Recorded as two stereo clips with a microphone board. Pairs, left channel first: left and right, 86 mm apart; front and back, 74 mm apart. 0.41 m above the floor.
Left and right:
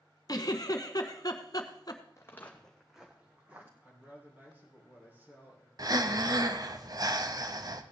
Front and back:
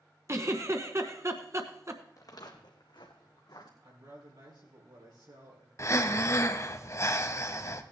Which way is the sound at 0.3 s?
135° left.